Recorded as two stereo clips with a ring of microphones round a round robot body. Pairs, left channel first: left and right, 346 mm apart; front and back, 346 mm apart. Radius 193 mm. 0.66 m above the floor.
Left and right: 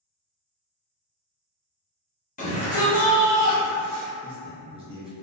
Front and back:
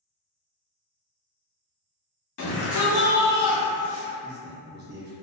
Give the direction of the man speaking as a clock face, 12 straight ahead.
5 o'clock.